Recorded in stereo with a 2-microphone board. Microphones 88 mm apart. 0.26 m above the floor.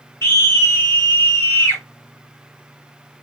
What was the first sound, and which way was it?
A scream, 30° left (ahead or behind).